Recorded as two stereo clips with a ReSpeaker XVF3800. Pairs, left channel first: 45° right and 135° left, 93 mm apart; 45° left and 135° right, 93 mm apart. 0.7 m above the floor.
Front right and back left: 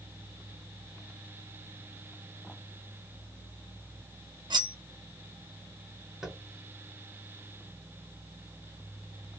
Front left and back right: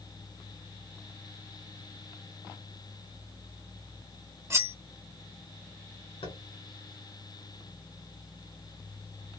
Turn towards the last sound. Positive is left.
turn(degrees=50)